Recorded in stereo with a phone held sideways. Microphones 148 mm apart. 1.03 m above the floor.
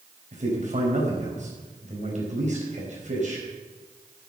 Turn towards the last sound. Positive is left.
turn(degrees=-55)  # may be behind; listen again after turning